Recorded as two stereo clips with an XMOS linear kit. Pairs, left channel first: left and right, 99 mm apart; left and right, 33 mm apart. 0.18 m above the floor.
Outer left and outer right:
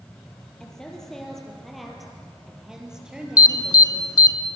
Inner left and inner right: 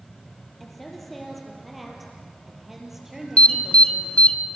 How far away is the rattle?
I don't hear a rattle.